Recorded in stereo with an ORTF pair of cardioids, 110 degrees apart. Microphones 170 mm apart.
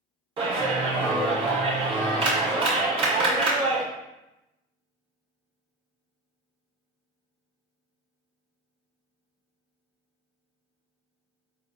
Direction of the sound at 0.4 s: 30° right.